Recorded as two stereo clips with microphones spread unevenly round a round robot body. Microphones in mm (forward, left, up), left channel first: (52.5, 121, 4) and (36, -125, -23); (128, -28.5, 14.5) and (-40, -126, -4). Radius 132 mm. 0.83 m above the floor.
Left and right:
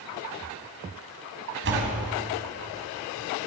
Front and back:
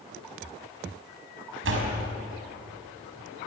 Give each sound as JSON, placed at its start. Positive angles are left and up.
{"t": 1.6, "sound": "a door slam", "azimuth_deg": -145, "distance_m": 5.0}